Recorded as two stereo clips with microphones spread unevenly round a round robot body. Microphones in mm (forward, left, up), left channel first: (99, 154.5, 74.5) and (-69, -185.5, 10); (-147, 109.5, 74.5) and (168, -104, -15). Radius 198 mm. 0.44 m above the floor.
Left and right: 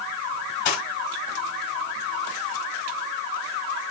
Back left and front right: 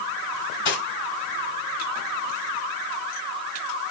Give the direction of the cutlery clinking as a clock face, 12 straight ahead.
9 o'clock.